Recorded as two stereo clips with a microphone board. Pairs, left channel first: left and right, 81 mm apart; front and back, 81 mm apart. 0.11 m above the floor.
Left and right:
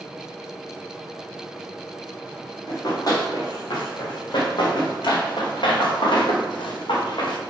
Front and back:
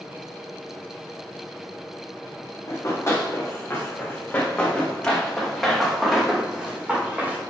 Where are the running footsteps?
55° left, 3.5 m; by 7.4 s 110° left, 3 m.